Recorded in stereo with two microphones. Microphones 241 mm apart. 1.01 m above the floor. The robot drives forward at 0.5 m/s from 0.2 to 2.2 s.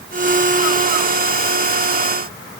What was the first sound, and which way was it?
Only background noise.